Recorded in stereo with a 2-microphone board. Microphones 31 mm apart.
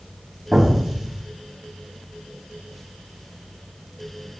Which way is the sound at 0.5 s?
10° right (ahead or behind).